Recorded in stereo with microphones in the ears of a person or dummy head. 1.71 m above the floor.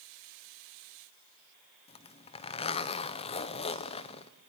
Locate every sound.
1.9 s a zipper: 25° left (ahead or behind), 1.0 m